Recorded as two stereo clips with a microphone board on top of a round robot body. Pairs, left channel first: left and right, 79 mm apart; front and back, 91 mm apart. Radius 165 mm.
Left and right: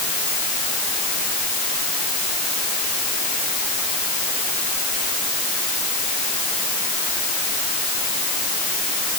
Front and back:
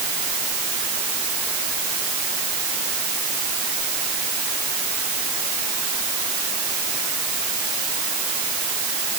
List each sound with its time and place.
Only background noise.